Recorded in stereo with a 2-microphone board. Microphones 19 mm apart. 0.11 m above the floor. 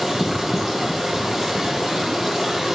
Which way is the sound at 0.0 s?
10° right (ahead or behind).